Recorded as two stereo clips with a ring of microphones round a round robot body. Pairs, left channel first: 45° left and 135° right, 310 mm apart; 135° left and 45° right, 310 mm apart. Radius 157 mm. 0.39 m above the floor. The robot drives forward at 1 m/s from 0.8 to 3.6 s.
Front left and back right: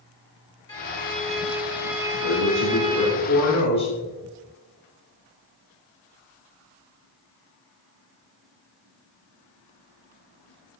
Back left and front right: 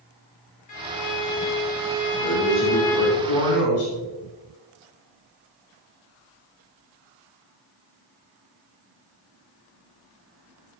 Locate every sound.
0.7 s a violin: 120° left, 2 m; by 3.1 s 155° left, 3.5 m
2.1 s a man speaking: 75° left, 5 m; by 3.9 s 90° left, 5 m